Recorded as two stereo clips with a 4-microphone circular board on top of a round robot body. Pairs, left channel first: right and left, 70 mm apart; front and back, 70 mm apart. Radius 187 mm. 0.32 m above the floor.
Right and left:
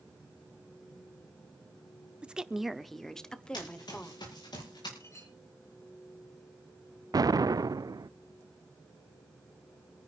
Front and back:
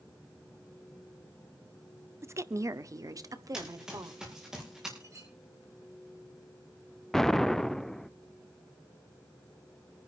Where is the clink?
135° right, 8 m.